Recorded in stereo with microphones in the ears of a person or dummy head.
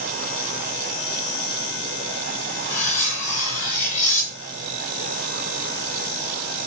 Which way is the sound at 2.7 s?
45° left (ahead or behind).